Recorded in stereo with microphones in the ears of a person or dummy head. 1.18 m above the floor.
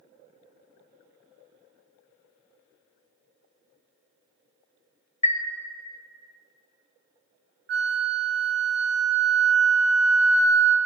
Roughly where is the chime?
Left.